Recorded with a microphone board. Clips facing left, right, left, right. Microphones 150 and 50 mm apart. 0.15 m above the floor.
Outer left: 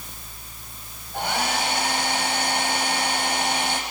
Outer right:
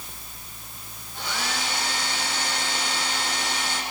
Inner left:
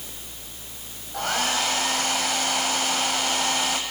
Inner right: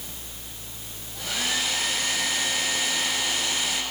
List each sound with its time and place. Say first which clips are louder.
1.1 s a hair dryer: outer left 6 dB, inner left 4 dB; 55° left (ahead or behind), 6.5 m